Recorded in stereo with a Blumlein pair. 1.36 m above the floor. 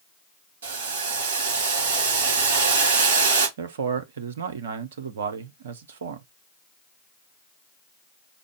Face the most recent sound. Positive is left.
turn(degrees=-60)